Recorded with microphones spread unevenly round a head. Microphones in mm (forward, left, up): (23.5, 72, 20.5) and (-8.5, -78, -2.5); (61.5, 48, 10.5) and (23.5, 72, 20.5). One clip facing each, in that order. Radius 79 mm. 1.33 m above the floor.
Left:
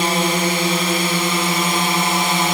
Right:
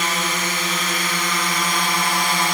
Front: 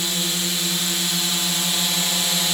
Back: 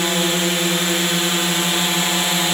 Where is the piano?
No piano in this recording.